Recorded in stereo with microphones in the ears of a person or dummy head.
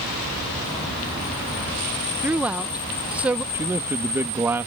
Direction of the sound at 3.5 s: 10° right (ahead or behind).